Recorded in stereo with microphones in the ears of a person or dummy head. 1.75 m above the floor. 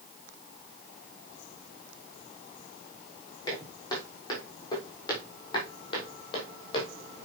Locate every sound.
3.5 s footsteps: 25° left (ahead or behind), 5.5 m; by 6.9 s 35° left (ahead or behind), 4.5 m